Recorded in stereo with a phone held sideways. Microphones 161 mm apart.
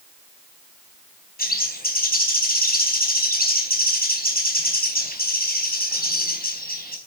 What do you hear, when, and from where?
1.4 s a bird: 70° left (ahead or behind), 4 m